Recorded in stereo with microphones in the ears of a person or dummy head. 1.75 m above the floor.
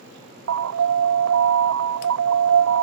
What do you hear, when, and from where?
0.5 s an alarm: 70° right (ahead or behind)